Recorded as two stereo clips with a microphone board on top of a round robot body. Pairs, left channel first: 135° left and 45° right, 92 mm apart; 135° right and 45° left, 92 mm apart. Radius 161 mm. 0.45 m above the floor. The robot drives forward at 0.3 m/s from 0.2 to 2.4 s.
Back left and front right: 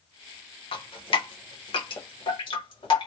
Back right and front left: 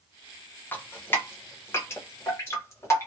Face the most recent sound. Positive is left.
turn(degrees=165)